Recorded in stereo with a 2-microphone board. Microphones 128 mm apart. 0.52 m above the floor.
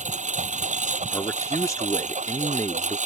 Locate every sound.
0.0 s a lawn mower: 70° right (ahead or behind)
1.1 s a man speaking: 25° left (ahead or behind)